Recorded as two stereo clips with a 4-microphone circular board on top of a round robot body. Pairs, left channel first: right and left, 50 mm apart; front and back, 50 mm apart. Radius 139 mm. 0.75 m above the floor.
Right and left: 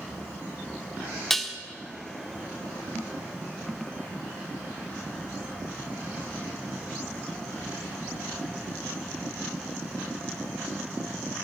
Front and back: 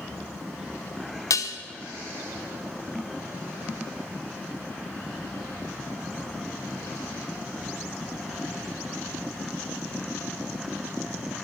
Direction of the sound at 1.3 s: Straight ahead.